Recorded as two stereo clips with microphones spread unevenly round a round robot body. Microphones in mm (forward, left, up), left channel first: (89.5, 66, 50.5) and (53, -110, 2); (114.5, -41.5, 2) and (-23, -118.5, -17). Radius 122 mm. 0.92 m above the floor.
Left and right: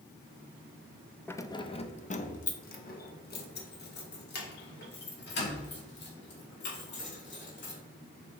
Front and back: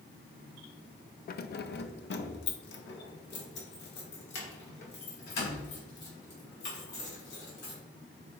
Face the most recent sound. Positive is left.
turn(degrees=60)